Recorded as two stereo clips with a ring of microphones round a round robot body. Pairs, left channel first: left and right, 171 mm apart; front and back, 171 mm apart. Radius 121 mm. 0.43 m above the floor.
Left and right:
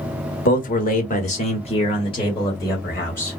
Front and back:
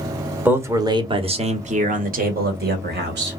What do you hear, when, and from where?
0.5 s a man speaking: 105° left, 1.1 m; by 3.4 s 170° left, 1.8 m